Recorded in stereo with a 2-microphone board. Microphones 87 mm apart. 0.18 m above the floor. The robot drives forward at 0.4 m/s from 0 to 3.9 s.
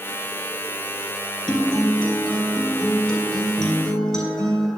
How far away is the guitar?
About 1.1 m.